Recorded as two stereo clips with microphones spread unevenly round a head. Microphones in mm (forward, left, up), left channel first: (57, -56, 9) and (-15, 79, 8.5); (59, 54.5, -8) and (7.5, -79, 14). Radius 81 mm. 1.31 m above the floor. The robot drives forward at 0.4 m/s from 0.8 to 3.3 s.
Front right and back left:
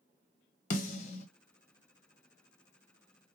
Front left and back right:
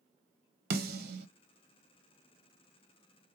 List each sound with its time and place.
0.7 s a snare drum: 100° right, 1.0 m; by 1.3 s 110° right, 1.0 m